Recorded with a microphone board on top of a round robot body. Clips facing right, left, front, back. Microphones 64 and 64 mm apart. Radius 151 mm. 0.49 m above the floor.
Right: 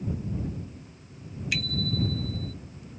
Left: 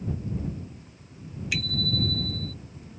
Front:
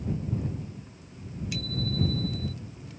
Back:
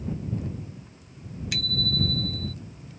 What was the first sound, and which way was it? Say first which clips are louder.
A bicycle bell: left 1 dB, back 2 dB; straight behind.